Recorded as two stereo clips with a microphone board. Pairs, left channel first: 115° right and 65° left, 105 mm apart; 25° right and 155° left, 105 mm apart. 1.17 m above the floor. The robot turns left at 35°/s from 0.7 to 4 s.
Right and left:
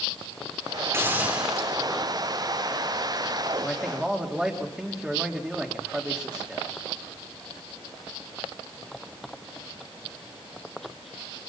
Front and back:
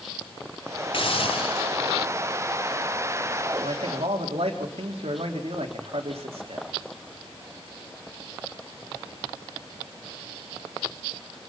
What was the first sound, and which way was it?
A hiss, 5° left.